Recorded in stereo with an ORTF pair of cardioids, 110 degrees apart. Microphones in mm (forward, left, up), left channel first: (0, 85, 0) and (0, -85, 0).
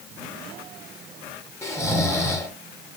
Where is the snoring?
15° left, 0.8 m.